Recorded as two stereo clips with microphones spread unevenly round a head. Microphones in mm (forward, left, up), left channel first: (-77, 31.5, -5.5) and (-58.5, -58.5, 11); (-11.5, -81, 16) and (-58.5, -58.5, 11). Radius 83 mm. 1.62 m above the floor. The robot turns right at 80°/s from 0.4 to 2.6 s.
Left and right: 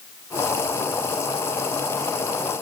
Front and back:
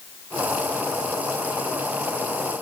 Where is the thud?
I don't hear a thud.